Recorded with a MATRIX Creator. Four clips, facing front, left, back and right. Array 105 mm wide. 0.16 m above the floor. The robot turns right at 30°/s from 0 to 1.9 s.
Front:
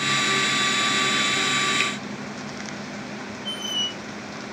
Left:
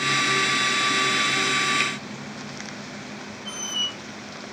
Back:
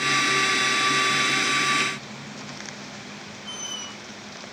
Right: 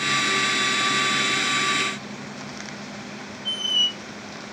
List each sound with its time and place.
1.8 s a finger snap: 40° left, 3 m; by 1.9 s 45° left, 3 m
3.5 s a squeak: 105° left, 1.0 m